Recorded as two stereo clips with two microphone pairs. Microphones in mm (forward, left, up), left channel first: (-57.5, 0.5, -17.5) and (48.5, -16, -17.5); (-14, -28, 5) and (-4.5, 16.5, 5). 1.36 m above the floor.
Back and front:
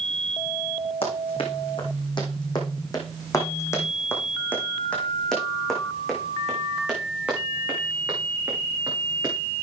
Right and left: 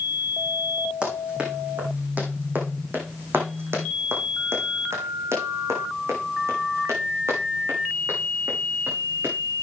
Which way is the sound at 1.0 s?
145° left.